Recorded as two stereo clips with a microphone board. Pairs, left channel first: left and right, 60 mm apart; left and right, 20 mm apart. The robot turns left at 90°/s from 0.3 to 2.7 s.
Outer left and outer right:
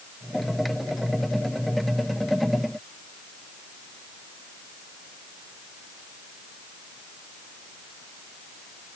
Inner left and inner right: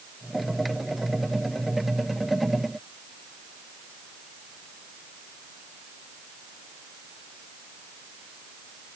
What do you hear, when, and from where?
Only background noise.